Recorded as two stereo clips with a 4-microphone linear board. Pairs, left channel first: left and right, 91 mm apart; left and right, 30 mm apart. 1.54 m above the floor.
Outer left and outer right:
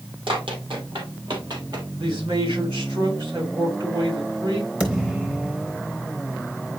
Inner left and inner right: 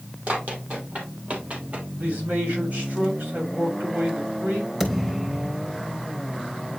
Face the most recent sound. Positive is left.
turn(degrees=-15)  # may be behind; listen again after turning